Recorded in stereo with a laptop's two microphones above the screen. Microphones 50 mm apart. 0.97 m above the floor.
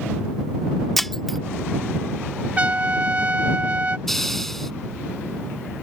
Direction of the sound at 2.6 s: 30° right (ahead or behind).